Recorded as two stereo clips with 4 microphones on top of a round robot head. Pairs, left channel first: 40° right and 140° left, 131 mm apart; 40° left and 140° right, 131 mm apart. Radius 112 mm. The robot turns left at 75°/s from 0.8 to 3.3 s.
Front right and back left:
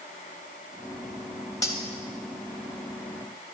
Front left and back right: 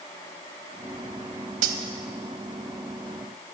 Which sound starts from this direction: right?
Cutlery clinking, at 1.6 s.